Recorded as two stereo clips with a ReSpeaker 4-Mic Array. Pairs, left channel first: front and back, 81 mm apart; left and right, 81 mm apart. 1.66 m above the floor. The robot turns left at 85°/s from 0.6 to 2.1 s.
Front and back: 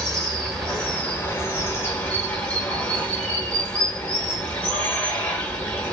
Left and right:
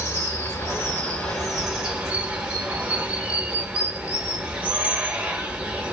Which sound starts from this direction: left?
Running water, at 0.0 s.